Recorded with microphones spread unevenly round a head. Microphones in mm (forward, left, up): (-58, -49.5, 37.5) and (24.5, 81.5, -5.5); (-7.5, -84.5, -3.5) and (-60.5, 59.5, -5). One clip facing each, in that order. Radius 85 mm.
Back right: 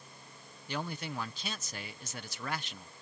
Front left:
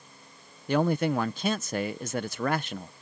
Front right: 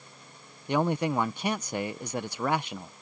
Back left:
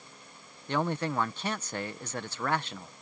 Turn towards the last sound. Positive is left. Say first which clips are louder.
# front left 14 dB, front right 4 dB
turn(degrees=5)